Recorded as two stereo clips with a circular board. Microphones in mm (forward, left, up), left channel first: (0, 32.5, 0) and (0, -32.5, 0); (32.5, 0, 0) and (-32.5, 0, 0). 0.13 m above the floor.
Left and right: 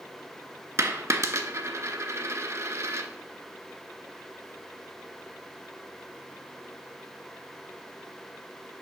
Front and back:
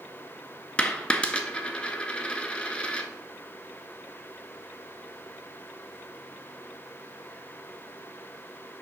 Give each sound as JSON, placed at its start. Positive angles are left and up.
{"t": 0.8, "sound": "a dropped coin", "azimuth_deg": -70, "distance_m": 0.6}